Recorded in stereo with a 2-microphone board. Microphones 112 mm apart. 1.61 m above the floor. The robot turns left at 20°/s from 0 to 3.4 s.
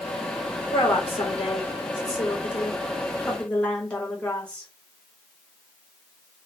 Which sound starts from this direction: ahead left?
A woman speaking, at 0.7 s.